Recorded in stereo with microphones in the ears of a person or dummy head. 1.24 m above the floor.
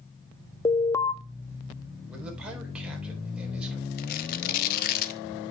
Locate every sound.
0.7 s an alarm: 20° left (ahead or behind), 0.5 m
2.1 s a man speaking: 5° right (ahead or behind), 4 m
4.0 s tearing paper: 50° left (ahead or behind), 1.0 m